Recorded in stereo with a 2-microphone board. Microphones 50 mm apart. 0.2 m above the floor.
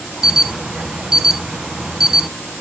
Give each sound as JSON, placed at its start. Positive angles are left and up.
{"t": 0.2, "sound": "an alarm", "side_deg": -10, "distance_m": 1.0}